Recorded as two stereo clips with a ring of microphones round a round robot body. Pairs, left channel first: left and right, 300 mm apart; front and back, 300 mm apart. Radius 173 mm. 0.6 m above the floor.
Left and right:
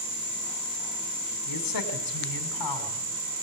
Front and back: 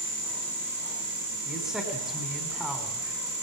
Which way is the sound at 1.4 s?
90° left.